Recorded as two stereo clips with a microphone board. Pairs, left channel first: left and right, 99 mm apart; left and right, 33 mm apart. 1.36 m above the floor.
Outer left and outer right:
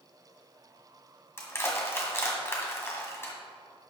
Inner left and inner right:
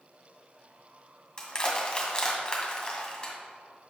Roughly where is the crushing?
Left.